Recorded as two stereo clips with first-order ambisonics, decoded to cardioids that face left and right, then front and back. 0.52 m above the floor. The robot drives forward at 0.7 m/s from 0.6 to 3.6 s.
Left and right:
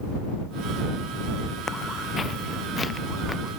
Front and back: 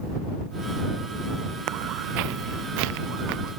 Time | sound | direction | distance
1.7 | footsteps | 155° left | ?